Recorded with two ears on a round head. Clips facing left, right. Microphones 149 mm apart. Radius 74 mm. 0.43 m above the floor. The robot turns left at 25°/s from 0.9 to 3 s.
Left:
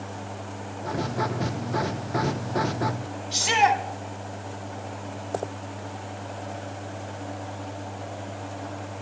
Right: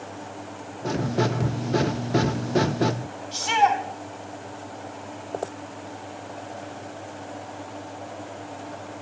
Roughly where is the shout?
Centre.